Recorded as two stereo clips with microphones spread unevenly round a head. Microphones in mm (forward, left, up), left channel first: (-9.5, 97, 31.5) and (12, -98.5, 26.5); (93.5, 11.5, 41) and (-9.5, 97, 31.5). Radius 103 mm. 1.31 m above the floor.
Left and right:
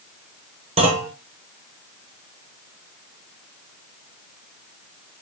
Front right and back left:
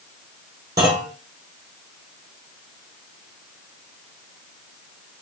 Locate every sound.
0.8 s a clunk: 145° right, 0.9 m